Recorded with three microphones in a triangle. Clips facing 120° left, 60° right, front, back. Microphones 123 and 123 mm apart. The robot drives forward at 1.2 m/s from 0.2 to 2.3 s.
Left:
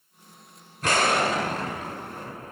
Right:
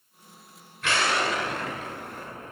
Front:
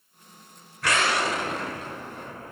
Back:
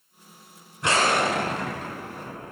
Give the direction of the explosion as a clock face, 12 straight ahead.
8 o'clock.